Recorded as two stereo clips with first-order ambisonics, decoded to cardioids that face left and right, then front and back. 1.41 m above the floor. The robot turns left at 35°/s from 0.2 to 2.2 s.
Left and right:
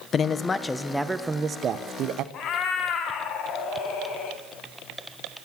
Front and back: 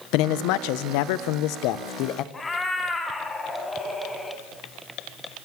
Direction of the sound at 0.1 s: 25° left.